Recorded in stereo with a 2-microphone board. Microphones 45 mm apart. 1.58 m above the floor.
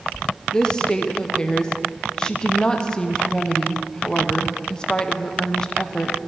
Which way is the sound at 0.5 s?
15° left (ahead or behind).